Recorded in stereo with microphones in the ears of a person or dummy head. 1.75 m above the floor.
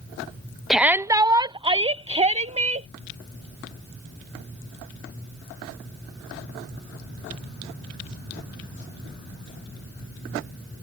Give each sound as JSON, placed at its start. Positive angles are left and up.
{"t": 0.7, "sound": "a shout", "side_deg": 0}